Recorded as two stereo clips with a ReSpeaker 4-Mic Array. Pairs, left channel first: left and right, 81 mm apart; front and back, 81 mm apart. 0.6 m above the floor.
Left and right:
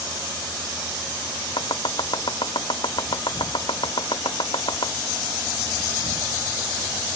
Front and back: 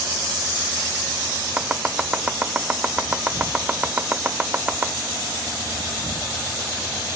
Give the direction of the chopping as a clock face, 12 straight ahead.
8 o'clock.